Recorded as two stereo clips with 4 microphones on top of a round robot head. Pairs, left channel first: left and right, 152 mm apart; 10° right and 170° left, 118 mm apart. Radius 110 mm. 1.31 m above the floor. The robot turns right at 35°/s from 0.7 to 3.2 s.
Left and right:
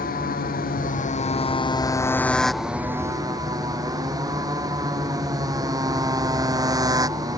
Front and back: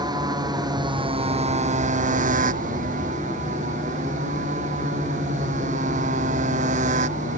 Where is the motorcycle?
115° left; by 7.4 s 155° right.